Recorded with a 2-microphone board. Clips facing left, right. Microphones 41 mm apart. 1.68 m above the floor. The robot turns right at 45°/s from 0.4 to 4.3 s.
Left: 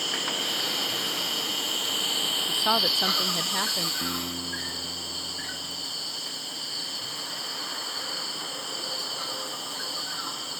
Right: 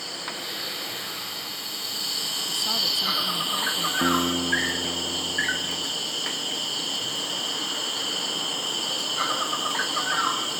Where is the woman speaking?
70° left; by 3.9 s 135° left.